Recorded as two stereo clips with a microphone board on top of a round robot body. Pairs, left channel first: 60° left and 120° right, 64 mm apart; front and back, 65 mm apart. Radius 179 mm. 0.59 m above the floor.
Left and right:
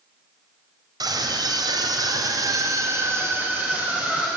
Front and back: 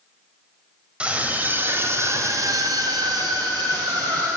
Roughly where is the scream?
Right.